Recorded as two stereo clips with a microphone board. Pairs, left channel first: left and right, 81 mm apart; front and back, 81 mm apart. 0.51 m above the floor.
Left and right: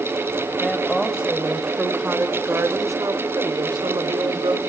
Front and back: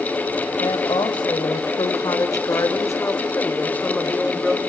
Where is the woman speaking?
Straight ahead, 2.5 m; by 4.6 s 85° right, 2.5 m.